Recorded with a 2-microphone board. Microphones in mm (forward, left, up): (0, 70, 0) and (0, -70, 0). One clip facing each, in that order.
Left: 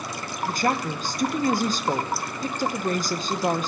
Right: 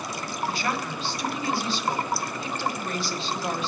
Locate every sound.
0.5 s a woman speaking: 45° left (ahead or behind), 0.9 m